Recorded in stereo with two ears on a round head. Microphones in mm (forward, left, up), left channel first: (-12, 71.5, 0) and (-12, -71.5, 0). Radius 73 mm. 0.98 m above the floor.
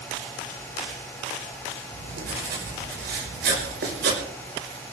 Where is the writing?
80° right, 5.5 m.